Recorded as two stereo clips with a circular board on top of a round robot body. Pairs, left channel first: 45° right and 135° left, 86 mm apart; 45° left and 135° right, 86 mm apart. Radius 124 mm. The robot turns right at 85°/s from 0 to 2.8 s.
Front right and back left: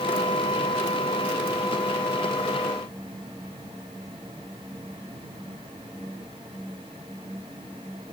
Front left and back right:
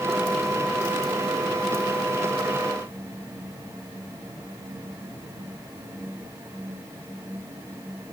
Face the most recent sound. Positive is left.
No sound to turn to.